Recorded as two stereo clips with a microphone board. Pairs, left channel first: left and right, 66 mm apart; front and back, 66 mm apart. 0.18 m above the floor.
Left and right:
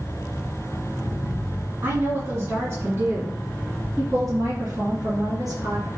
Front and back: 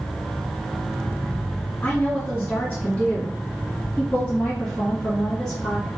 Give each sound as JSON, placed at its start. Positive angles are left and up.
{"t": 1.8, "sound": "a woman speaking", "azimuth_deg": -65, "distance_m": 1.8}